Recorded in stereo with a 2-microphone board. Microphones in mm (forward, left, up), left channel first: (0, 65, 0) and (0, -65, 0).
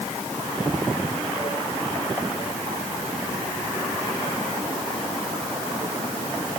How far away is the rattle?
I don't hear a rattle.